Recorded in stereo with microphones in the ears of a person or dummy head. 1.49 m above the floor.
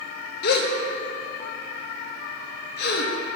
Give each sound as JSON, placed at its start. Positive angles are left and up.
{"t": 0.4, "sound": "a gasp", "side_deg": 60, "distance_m": 0.8}